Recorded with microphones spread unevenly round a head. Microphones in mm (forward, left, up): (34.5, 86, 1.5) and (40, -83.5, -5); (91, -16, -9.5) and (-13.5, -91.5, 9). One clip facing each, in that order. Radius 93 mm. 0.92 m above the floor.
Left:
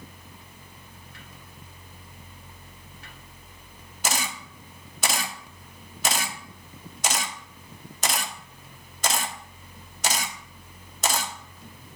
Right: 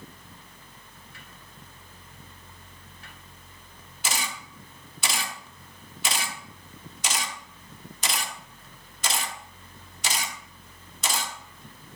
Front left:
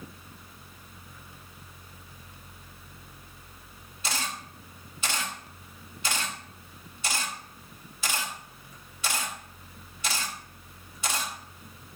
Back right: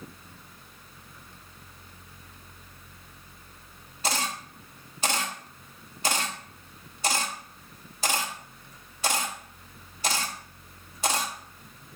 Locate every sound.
4.0 s a camera shutter: 145° left, 0.7 m